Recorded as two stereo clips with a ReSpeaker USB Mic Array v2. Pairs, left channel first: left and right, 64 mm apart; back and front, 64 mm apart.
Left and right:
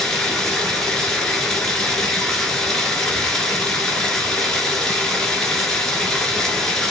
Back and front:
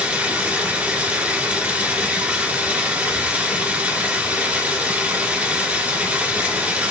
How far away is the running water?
About 1.4 m.